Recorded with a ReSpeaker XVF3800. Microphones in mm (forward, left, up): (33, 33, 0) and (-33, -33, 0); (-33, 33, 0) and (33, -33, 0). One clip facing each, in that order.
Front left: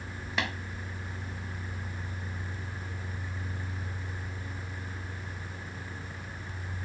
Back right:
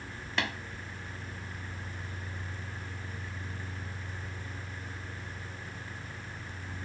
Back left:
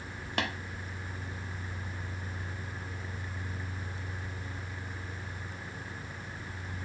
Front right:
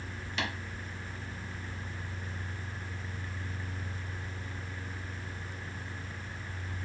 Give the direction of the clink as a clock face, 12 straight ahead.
I don't hear a clink.